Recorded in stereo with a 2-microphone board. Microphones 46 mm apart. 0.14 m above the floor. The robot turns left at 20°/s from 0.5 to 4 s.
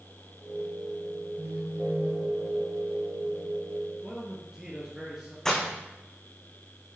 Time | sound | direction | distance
1.4 | a phone buzzing | 65° right (ahead or behind) | 1.6 m
4.0 | a man speaking | 5° right (ahead or behind) | 2.5 m
5.5 | breaking glass | 10° left (ahead or behind) | 3 m